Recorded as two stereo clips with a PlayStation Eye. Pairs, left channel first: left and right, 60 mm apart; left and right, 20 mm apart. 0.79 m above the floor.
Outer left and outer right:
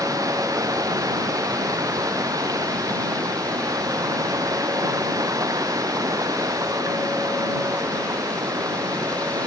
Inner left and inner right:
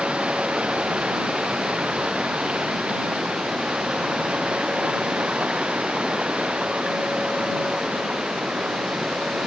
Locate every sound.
0.0 s running water: 80° right